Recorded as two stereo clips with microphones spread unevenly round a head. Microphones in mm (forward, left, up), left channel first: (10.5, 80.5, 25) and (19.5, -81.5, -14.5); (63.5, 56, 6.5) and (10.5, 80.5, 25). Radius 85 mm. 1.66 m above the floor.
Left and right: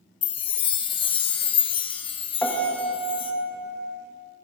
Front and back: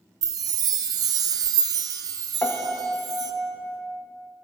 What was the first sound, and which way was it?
A chime, 155° left.